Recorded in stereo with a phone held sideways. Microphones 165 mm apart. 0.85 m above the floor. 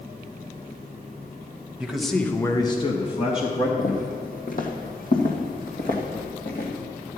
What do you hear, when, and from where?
1.8 s a man speaking: 5° right (ahead or behind), 1.2 m; by 3.7 s 30° left (ahead or behind), 1.8 m
3.8 s footsteps: 55° left (ahead or behind), 1.5 m; by 6.7 s 60° left (ahead or behind), 3 m